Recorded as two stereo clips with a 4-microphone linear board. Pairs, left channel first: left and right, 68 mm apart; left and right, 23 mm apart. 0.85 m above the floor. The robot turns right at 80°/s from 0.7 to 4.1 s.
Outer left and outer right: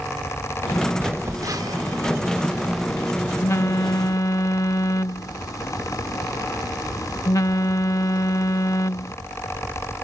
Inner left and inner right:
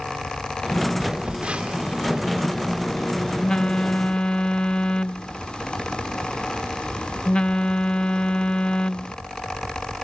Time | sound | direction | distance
1.0 | a phone buzzing | 145° right | ?